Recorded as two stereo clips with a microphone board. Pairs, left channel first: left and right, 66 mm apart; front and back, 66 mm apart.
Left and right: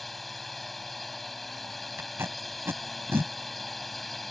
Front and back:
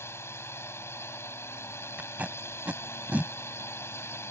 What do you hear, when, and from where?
0.0 s a drone: 5° left
2.0 s tape being pulled: 125° right